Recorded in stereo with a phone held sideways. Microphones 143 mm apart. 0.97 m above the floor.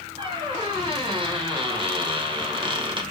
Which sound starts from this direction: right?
A squeak, at 0.2 s.